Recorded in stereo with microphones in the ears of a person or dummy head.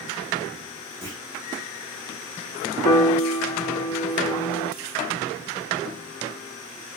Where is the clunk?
15° left (ahead or behind), 0.8 m.